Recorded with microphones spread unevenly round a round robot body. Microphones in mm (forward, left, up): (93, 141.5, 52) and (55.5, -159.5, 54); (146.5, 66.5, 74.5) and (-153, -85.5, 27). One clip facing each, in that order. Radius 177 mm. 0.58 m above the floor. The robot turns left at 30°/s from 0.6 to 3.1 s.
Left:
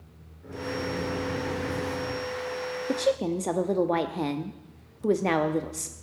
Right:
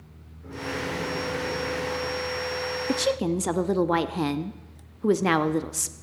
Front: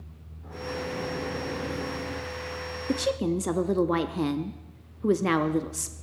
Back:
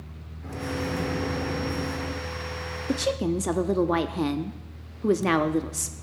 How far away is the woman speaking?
About 0.6 m.